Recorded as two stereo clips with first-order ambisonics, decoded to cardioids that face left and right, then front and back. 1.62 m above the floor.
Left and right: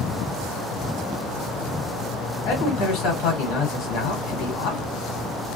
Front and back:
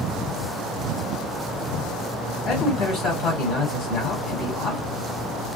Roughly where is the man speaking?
Ahead left.